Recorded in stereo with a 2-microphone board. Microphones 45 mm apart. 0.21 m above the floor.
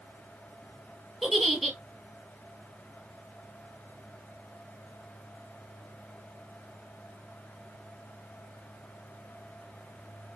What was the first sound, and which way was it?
A giggle, 5° left (ahead or behind).